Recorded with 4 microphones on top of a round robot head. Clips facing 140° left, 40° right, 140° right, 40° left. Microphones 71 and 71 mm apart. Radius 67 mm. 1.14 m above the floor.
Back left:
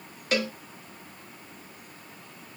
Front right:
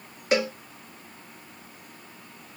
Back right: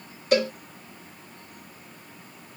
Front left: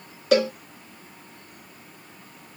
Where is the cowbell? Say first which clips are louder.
Front right 4 dB, front left 2 dB; 35° left, 1.7 m.